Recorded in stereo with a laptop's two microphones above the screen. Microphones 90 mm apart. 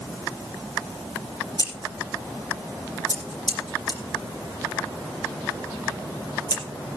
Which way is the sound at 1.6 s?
50° left (ahead or behind).